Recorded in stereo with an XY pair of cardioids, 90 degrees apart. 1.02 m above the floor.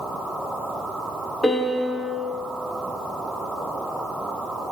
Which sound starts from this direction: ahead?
A piano, at 1.4 s.